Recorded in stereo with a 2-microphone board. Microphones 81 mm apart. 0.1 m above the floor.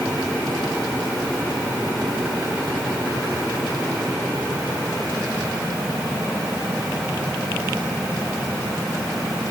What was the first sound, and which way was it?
Only background noise.